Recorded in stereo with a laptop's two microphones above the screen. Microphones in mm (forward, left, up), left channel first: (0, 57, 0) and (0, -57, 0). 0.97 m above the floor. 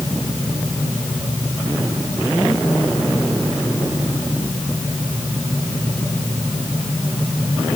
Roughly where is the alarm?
No alarm in this recording.